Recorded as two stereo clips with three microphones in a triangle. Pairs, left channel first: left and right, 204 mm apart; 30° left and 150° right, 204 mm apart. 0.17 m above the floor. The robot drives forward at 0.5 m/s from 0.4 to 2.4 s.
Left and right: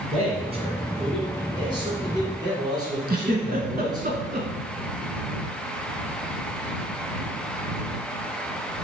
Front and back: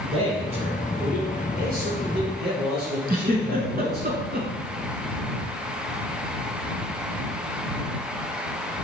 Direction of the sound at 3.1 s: 120° right.